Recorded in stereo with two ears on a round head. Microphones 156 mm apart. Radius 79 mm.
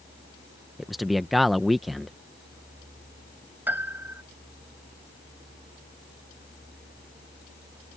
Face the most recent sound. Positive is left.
turn(degrees=-10)  # may be behind; listen again after turning